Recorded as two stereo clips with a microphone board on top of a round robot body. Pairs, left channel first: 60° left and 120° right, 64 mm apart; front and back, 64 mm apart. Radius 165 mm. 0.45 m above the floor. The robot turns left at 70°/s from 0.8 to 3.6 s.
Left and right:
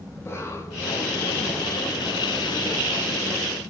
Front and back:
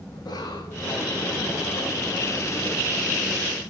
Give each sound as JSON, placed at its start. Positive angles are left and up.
{"t": 0.1, "sound": "a cough", "azimuth_deg": 10, "distance_m": 4.5}